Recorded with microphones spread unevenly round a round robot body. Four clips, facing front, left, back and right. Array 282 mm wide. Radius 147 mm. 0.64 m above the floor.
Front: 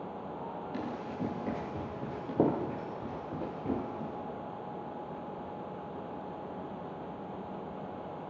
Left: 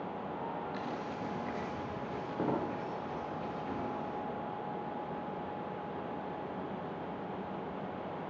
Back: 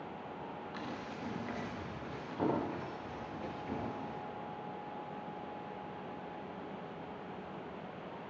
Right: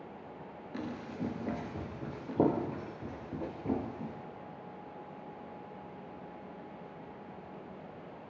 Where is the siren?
I don't hear a siren.